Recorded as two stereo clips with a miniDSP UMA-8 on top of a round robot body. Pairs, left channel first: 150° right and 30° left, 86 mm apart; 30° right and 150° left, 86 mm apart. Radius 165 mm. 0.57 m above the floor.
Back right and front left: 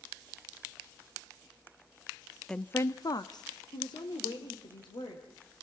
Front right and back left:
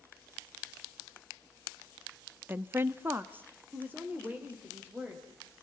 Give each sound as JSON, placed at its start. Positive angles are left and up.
{"t": 2.5, "sound": "a woman speaking", "azimuth_deg": 135, "distance_m": 0.9}